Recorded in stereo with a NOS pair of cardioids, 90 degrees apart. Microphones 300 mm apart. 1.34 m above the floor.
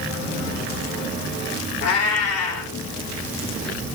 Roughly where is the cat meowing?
Ahead left.